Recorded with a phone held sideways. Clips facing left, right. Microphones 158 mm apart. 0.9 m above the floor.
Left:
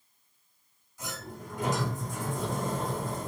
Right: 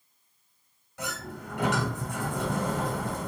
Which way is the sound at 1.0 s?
85° right.